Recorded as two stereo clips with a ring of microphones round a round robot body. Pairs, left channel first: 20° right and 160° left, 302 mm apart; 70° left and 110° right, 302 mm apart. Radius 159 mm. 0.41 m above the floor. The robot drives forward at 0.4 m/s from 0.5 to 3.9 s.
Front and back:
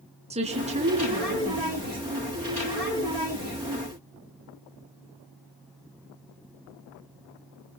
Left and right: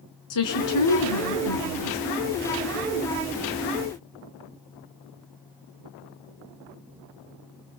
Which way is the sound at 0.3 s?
90° left.